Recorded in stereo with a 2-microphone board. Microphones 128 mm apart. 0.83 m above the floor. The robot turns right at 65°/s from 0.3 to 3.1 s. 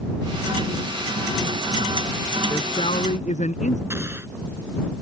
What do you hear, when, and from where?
2.5 s a man speaking: 30° left; by 3.8 s 70° left
3.9 s an explosion: 20° right (ahead or behind)